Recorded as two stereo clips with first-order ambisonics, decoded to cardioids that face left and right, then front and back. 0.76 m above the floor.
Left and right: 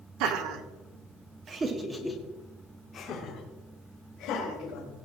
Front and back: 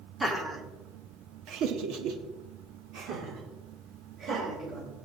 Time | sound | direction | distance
0.2 | laughter | 100° right | 2.0 m